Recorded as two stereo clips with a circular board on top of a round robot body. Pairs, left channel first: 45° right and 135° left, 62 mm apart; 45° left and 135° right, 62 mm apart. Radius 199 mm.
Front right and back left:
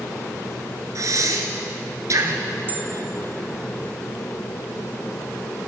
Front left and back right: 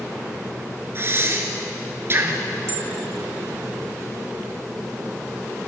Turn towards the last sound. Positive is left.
turn(degrees=-170)